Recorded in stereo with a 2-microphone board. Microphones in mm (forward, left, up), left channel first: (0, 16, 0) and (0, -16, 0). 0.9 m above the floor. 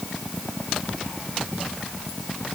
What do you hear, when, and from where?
Only background noise.